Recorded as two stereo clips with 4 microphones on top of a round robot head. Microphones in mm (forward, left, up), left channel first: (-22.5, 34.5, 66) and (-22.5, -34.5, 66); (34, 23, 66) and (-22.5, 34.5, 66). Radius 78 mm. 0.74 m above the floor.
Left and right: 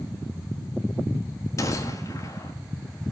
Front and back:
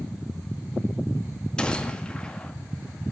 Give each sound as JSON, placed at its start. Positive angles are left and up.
{"t": 1.6, "sound": "a gunshot", "azimuth_deg": 60, "distance_m": 1.5}